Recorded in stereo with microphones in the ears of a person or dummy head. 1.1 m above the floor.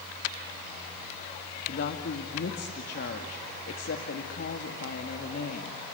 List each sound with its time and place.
1.7 s a woman speaking: 55° left (ahead or behind), 1.9 m